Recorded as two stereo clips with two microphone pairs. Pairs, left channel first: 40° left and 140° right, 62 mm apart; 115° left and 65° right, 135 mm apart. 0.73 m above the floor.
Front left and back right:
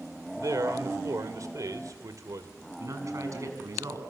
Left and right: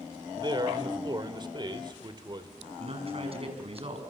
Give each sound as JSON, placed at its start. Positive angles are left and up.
{"t": 0.4, "sound": "a man speaking", "azimuth_deg": -125, "distance_m": 2.5}
{"t": 2.8, "sound": "a man speaking", "azimuth_deg": -110, "distance_m": 5.5}